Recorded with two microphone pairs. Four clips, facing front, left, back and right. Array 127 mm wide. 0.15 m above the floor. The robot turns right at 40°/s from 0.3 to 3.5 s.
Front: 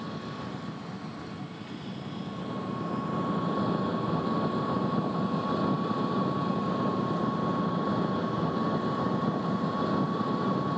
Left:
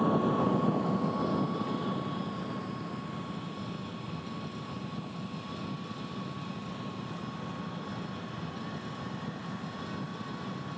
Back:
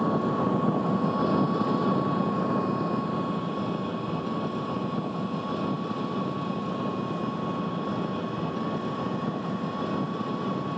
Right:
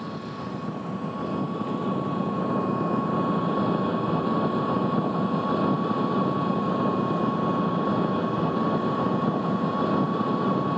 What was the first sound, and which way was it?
An engine running, 145° left.